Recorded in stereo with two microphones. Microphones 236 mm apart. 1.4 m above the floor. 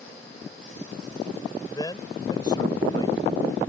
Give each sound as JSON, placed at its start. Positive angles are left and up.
{"t": 1.7, "sound": "a man speaking", "side_deg": 15}